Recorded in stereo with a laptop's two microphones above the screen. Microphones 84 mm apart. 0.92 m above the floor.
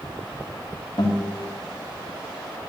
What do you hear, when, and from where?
1.0 s a guitar: 60° left (ahead or behind), 2.5 m